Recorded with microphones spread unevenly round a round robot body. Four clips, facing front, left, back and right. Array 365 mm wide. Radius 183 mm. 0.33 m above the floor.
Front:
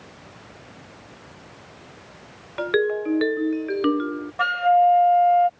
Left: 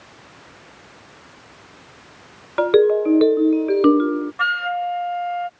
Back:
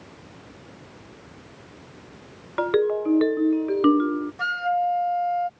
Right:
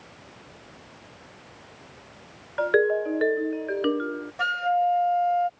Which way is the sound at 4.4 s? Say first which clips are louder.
Right 3 dB, front 8 dB; 20° right.